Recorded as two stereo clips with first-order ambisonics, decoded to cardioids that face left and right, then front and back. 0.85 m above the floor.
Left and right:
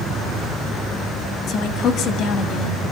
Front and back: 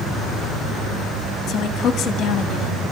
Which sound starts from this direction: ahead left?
A woman speaking, at 1.5 s.